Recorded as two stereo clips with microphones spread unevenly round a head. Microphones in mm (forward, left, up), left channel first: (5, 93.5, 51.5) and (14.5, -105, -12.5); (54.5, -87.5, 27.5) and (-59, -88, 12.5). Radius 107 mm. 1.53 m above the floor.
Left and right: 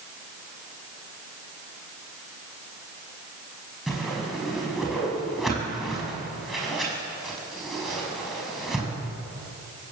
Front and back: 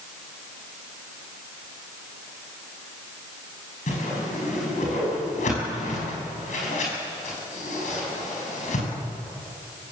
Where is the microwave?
No microwave in this recording.